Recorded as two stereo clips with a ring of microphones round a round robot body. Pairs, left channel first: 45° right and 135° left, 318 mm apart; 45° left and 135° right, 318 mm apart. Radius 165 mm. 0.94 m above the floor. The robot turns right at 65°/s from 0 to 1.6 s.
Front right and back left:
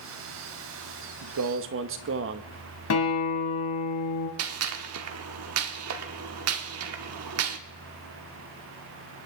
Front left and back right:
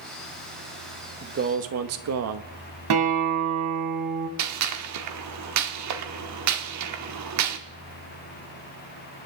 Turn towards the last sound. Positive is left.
turn(degrees=-175)